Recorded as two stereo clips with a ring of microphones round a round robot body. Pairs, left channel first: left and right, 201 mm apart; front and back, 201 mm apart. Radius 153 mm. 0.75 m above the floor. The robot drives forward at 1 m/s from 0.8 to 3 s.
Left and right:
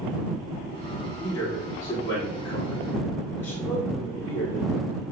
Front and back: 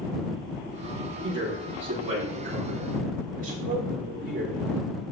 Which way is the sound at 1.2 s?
165° left.